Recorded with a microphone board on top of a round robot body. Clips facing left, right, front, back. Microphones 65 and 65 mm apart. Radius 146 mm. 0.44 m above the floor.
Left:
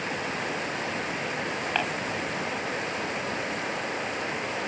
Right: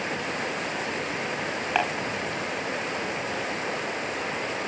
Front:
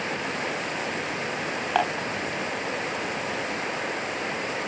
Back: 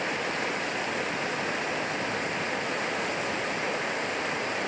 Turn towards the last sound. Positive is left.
turn(degrees=-15)